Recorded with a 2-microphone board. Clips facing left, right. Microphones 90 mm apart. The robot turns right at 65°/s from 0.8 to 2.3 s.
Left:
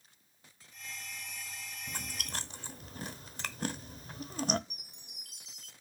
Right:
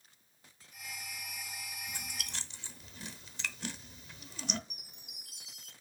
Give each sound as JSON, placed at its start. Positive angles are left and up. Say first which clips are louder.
{"t": 1.9, "sound": "chewing", "louder": "left 3 dB", "side_deg": 55, "distance_m": 0.7}
{"t": 4.7, "sound": "a chime", "louder": "even", "side_deg": -10, "distance_m": 3.5}